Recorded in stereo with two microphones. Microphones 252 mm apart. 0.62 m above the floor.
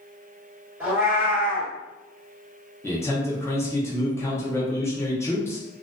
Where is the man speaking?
10° left (ahead or behind), 0.7 m.